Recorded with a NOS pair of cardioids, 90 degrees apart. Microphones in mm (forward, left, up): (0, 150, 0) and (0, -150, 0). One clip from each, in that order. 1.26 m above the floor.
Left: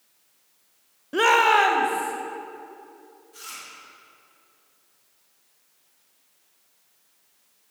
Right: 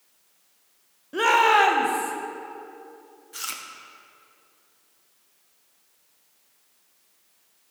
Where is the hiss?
No hiss in this recording.